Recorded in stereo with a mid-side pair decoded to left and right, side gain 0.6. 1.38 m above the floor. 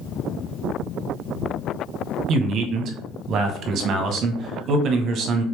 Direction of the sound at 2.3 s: 50° right.